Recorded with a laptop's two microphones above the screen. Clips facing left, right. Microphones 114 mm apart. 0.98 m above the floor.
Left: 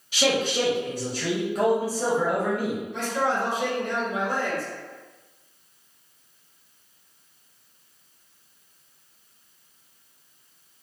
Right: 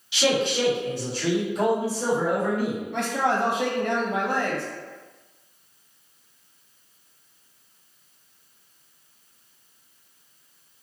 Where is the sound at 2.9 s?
65° right (ahead or behind), 0.7 m.